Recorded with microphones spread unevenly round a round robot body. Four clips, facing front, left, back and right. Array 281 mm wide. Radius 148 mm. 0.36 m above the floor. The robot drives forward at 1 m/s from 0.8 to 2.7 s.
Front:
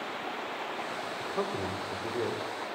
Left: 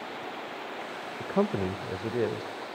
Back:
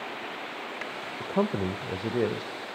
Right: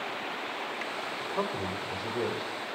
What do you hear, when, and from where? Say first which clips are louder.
1.2 s a man speaking: left 6 dB, back 7 dB; 115° left, 1.0 m; by 2.5 s 165° left, 1.8 m